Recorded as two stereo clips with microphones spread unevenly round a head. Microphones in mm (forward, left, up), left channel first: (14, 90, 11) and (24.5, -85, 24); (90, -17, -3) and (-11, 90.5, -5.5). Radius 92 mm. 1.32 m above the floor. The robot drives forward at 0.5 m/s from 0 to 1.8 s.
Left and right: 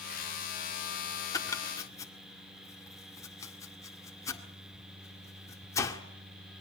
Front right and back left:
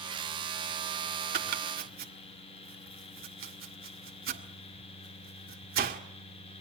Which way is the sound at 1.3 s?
165° left.